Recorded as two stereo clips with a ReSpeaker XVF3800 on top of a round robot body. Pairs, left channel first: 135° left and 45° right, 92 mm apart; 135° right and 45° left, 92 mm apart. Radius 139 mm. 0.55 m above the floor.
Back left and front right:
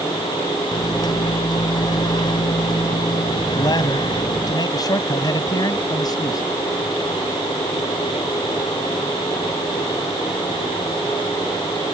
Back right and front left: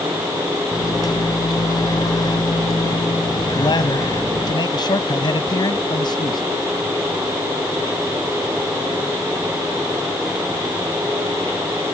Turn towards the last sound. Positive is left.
turn(degrees=-175)